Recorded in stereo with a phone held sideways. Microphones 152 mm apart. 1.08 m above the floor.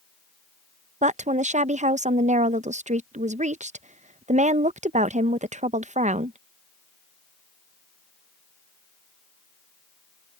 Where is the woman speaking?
50° right (ahead or behind).